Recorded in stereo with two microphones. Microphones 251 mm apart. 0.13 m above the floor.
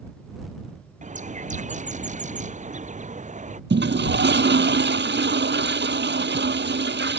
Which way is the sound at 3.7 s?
45° right (ahead or behind).